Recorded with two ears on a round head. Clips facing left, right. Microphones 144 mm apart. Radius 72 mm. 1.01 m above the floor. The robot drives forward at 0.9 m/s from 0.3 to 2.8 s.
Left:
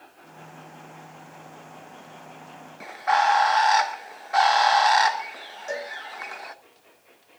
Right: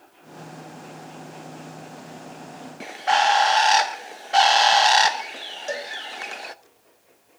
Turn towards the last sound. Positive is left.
turn(degrees=-35)  # may be behind; listen again after turning